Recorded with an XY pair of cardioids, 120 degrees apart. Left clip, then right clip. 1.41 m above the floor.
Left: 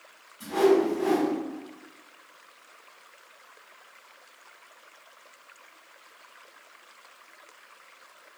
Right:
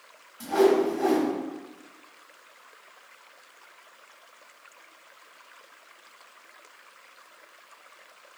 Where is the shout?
No shout in this recording.